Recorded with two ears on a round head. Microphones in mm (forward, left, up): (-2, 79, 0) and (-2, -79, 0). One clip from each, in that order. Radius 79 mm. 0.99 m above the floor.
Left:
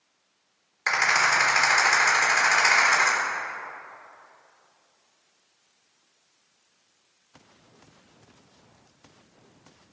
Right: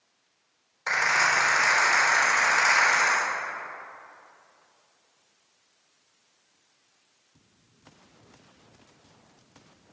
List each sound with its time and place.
0.9 s a rattle: 50° left (ahead or behind), 3 m